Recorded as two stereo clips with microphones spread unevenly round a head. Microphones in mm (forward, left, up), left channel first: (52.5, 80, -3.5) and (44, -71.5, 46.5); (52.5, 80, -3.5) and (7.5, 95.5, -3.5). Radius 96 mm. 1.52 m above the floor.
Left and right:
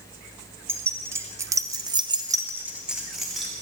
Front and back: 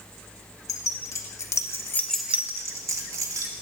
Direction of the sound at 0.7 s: 20° right.